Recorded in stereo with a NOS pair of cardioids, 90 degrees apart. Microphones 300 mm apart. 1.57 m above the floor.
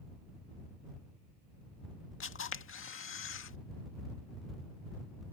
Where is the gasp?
I don't hear a gasp.